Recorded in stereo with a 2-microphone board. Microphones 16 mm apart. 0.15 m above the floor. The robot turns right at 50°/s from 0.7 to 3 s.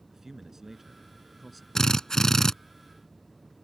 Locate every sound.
0.1 s a man speaking: 35° right; by 1.6 s 10° left
1.8 s a drill: 90° left; by 2.5 s 130° left